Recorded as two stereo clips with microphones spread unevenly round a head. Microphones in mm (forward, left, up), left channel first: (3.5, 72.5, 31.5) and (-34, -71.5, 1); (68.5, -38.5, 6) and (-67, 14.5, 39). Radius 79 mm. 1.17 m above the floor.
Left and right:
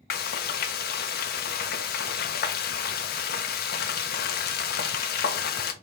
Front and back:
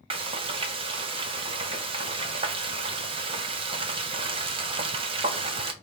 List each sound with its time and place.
0.1 s frying: 100° left, 0.6 m